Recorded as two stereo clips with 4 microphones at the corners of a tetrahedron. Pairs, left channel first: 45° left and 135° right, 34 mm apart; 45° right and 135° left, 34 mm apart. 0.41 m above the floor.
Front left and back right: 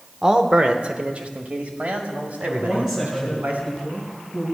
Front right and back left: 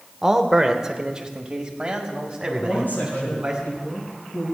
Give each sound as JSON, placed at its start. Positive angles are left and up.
{"t": 0.2, "sound": "a man speaking", "azimuth_deg": -175, "distance_m": 0.8}
{"t": 2.6, "sound": "a woman speaking", "azimuth_deg": -55, "distance_m": 5.5}